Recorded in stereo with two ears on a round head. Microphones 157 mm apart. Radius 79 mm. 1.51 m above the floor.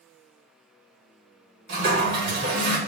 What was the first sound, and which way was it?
A toilet flushing, 60° right (ahead or behind).